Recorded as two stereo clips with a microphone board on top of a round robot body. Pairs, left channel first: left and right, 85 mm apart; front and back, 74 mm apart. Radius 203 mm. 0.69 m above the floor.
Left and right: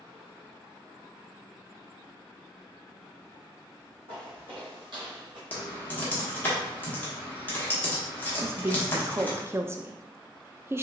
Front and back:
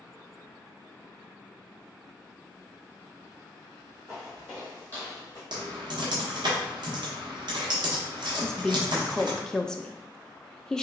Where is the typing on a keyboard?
160° left, 1.1 m.